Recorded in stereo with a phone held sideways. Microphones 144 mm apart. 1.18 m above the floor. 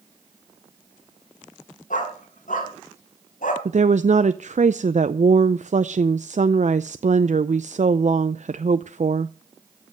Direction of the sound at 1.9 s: 75° left (ahead or behind).